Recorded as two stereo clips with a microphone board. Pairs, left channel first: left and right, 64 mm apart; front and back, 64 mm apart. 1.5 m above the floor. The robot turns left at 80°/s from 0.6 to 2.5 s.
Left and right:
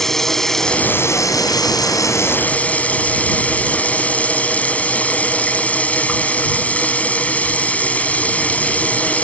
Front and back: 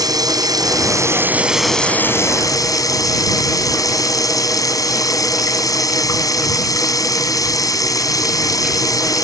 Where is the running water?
175° left; by 9.2 s 20° left.